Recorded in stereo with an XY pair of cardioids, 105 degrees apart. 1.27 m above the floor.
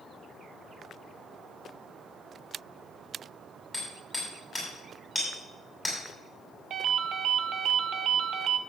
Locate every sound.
3.7 s hammering: 20° left, 6.5 m
6.7 s a ringtone: 60° right, 1.1 m